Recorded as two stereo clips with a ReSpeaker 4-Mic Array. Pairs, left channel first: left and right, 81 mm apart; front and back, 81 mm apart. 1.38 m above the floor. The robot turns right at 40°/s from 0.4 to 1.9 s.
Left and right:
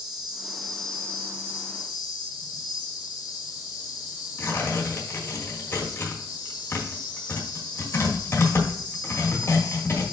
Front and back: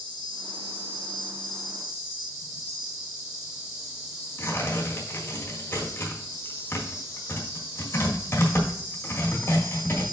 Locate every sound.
0.0 s an insect: 5° right, 1.8 m; by 10.1 s 55° left, 1.8 m
4.4 s tearing paper: 45° left, 1.6 m